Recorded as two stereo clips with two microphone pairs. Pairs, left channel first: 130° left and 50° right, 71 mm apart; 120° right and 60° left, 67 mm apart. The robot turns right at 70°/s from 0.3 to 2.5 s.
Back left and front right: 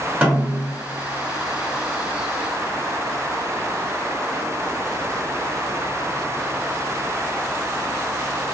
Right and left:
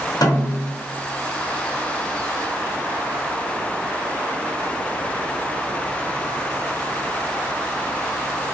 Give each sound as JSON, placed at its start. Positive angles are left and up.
{"t": 0.2, "sound": "a snare drum", "azimuth_deg": -120, "distance_m": 0.9}